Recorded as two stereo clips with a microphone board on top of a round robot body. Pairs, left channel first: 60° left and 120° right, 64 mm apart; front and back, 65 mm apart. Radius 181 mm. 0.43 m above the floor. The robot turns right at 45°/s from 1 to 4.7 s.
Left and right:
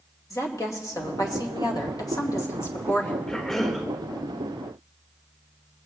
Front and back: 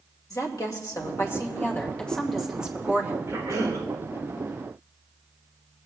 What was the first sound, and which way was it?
A woman speaking, 30° left.